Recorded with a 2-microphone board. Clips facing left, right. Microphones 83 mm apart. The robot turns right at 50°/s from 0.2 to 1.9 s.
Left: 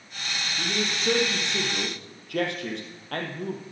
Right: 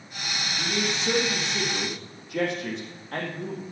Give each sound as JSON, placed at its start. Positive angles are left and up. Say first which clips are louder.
{"t": 0.6, "sound": "a man speaking", "louder": "right 1 dB", "azimuth_deg": 30, "distance_m": 3.5}